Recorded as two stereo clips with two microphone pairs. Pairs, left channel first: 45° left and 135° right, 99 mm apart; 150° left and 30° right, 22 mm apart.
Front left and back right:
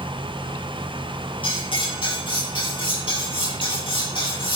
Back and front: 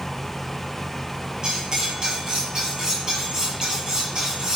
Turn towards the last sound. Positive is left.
turn(degrees=20)